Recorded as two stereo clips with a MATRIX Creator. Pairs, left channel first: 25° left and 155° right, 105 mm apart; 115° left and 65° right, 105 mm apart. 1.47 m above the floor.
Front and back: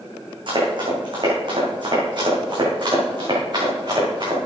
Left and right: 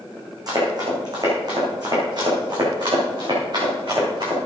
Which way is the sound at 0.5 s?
120° right.